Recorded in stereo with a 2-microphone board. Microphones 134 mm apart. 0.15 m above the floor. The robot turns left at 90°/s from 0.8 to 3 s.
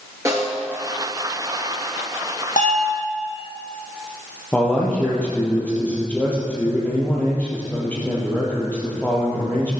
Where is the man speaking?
10° left (ahead or behind), 3 m.